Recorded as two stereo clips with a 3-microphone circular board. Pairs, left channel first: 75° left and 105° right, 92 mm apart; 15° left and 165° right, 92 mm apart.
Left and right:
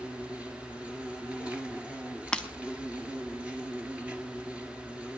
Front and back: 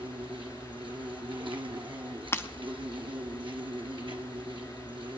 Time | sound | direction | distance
0.0 | an insect | straight behind | 1.5 m
2.3 | breaking glass | 5° left | 0.8 m